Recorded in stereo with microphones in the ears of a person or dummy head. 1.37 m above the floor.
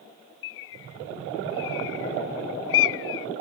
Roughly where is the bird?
Left.